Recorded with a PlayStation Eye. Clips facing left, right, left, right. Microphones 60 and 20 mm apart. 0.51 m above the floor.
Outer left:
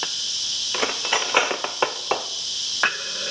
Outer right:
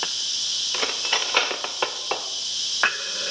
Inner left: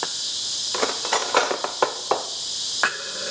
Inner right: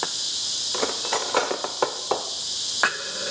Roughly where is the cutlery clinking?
Centre.